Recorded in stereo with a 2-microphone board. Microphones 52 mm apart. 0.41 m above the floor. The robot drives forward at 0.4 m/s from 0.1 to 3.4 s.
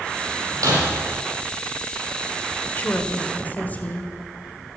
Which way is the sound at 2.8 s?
35° left (ahead or behind).